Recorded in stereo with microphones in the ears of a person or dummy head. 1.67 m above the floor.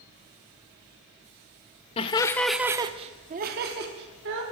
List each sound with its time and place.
2.0 s laughter: 30° left (ahead or behind), 0.8 m; by 4.4 s 70° right (ahead or behind), 1.7 m